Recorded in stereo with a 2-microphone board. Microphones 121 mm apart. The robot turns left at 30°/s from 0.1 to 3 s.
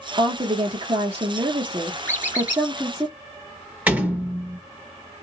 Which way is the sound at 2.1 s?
20° left (ahead or behind).